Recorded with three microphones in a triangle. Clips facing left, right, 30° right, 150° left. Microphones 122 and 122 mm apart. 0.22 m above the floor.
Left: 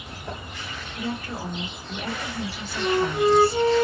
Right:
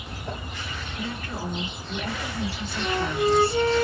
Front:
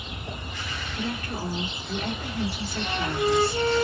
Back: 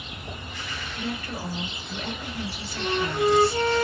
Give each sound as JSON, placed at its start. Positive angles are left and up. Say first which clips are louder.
{"t": 1.0, "sound": "a woman speaking", "louder": "left 3 dB, front 1 dB", "azimuth_deg": 10, "distance_m": 3.0}
{"t": 2.8, "sound": "a flute", "louder": "left 4 dB, back 3 dB", "azimuth_deg": 125, "distance_m": 1.1}